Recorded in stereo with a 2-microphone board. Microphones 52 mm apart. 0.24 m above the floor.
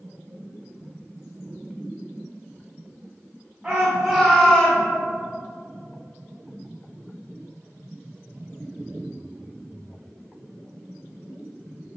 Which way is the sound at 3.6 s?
15° right (ahead or behind).